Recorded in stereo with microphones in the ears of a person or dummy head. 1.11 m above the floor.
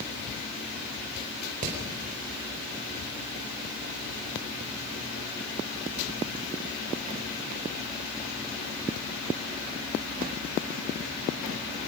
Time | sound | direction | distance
1.6 | hammering | 40° right (ahead or behind) | 4 m